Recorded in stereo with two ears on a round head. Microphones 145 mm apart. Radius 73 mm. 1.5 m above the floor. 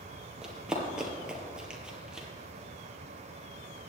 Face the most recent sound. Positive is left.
turn(degrees=-5)  # may be behind; listen again after turning